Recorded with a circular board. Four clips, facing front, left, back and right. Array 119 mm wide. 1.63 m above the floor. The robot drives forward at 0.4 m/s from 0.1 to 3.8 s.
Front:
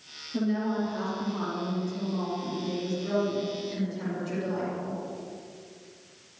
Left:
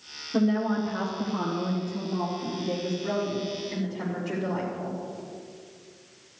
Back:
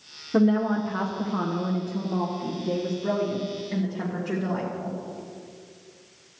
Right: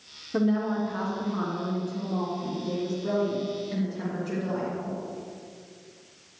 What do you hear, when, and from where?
0.3 s a woman speaking: 175° right, 1.0 m; by 5.0 s straight behind, 2.5 m